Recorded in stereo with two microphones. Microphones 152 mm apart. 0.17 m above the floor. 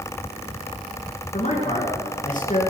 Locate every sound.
1.3 s a man speaking: 55° left (ahead or behind), 2.5 m